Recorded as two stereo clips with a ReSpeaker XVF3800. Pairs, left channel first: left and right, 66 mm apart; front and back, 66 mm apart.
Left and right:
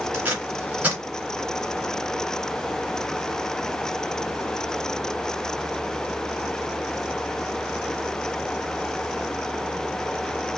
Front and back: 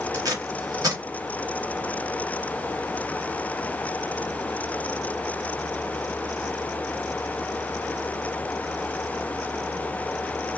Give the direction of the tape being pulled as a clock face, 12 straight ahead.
5 o'clock.